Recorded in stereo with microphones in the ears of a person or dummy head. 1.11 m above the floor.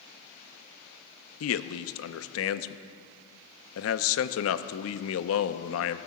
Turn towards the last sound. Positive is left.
turn(degrees=70)  # may be behind; listen again after turning